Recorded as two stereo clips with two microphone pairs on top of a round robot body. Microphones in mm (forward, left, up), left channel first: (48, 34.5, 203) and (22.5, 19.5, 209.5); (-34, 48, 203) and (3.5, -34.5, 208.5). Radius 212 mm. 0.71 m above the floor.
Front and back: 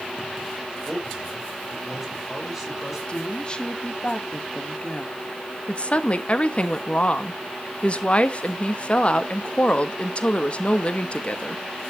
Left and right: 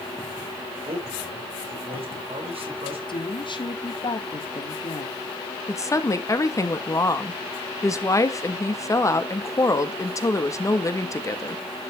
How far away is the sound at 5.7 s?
About 1.7 m.